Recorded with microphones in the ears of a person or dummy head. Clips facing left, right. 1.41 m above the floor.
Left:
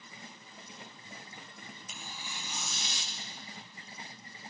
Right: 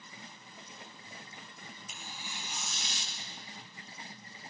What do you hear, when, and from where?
1.9 s tearing paper: 85° left, 2.5 m